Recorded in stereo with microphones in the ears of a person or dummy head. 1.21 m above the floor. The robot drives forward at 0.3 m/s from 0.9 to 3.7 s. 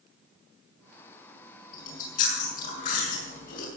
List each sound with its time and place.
1.7 s chewing: 50° left (ahead or behind), 7 m; by 3.7 s 55° left (ahead or behind), 6.5 m